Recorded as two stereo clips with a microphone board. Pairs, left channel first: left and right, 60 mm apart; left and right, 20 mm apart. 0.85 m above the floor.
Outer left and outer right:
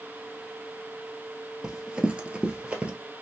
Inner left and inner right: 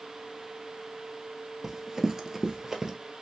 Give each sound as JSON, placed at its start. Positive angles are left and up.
{"t": 1.6, "sound": "running footsteps", "side_deg": -10, "distance_m": 0.9}